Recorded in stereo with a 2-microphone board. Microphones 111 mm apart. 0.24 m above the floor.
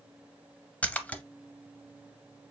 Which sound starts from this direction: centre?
A splash, at 0.8 s.